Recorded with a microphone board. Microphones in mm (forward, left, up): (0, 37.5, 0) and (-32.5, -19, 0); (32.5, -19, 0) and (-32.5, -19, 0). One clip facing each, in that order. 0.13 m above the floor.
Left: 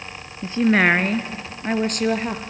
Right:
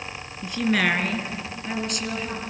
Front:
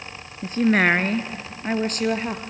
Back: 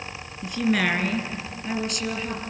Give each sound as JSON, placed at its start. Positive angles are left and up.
{"t": 0.4, "sound": "a woman speaking", "azimuth_deg": 20, "distance_m": 1.3}